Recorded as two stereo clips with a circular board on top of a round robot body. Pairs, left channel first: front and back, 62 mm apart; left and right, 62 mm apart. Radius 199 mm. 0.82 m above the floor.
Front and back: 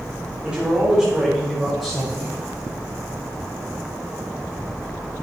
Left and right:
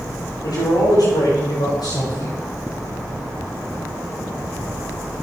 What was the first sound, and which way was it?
A man speaking, 100° left.